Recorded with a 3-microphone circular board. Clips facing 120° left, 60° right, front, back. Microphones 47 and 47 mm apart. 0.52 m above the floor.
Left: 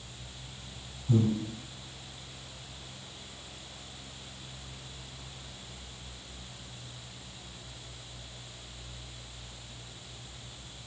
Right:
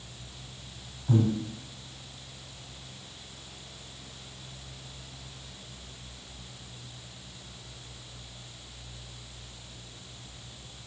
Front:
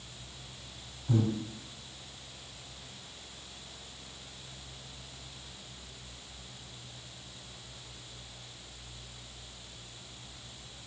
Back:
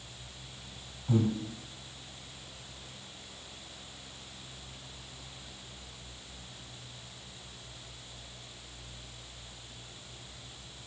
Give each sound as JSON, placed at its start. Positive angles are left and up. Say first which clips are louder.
{"t": 1.1, "sound": "breathing", "louder": "right 1 dB, back 1 dB", "azimuth_deg": -105, "distance_m": 0.7}